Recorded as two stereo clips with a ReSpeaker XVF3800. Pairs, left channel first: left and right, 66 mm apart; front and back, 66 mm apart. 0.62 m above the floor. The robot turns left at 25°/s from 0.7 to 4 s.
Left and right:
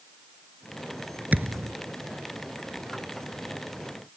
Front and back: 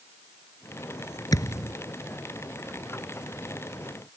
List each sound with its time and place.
1.3 s a thud: 25° right; by 1.7 s 35° right